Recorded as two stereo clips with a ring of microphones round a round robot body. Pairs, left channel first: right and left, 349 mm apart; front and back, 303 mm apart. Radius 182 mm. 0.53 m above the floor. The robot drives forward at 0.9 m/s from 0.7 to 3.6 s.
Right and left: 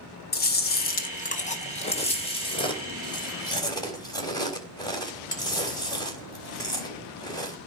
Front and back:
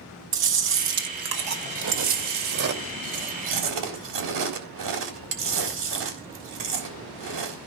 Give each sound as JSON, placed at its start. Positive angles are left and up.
{"t": 0.3, "sound": "chewing", "azimuth_deg": -145, "distance_m": 1.8}